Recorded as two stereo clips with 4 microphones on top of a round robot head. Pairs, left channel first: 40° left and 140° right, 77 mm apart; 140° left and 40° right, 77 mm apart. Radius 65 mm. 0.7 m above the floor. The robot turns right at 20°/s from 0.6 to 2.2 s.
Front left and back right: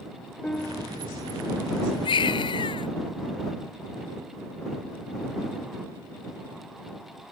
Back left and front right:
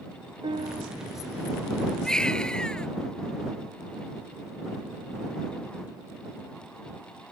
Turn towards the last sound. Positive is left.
turn(degrees=60)